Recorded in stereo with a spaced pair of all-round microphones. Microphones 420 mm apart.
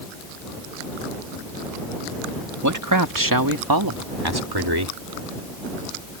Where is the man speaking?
40° right (ahead or behind); by 5.0 s 65° right (ahead or behind).